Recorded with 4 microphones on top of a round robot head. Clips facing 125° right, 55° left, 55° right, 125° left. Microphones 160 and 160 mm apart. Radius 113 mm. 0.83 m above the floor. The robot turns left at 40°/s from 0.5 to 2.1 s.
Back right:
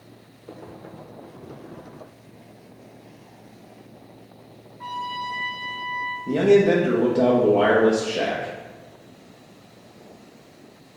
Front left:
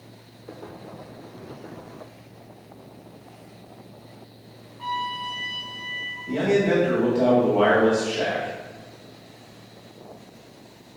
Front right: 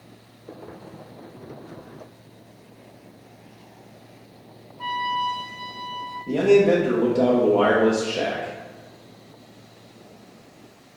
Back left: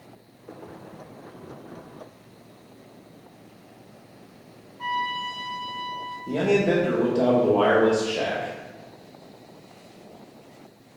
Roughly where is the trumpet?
Ahead left.